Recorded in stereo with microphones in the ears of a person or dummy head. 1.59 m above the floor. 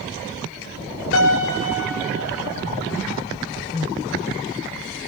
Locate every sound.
1.1 s a piano: 75° left (ahead or behind), 2.5 m